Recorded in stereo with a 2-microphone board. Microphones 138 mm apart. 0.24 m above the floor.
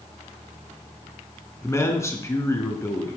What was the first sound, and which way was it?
A man speaking, 20° left (ahead or behind).